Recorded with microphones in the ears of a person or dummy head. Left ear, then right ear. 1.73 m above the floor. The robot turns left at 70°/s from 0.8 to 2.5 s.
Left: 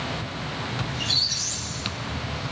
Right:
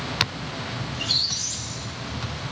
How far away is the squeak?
About 1.6 m.